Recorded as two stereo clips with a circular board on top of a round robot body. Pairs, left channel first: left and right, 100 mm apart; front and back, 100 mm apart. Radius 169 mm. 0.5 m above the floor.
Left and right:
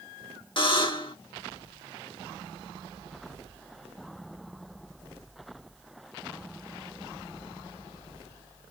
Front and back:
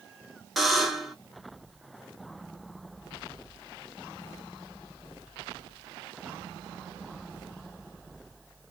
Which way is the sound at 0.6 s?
90° left.